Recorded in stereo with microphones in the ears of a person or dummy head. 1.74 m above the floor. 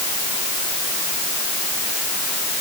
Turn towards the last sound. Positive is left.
No sound to turn to.